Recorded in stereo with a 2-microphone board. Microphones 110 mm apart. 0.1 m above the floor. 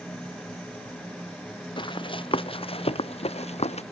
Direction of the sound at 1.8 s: 50° left (ahead or behind).